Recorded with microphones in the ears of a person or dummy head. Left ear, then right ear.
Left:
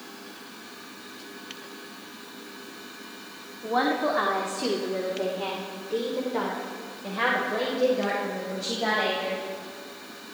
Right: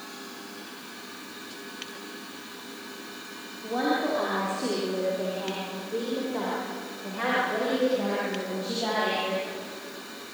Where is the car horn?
I don't hear a car horn.